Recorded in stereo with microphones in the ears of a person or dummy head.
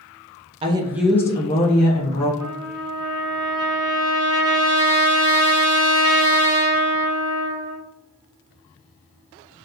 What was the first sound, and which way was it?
A woman speaking, 25° right (ahead or behind).